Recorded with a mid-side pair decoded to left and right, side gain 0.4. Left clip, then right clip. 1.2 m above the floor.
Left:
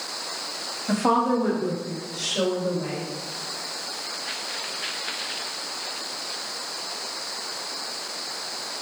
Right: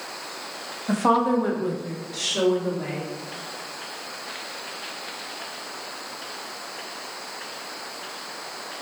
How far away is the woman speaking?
About 1.1 m.